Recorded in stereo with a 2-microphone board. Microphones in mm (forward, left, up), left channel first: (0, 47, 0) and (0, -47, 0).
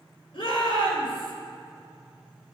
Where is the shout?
70° left (ahead or behind), 5 m.